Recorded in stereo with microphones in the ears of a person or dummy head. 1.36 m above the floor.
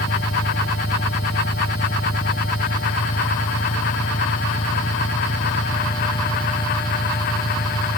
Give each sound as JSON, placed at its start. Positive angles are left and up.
{"t": 0.0, "sound": "an engine running", "side_deg": 25}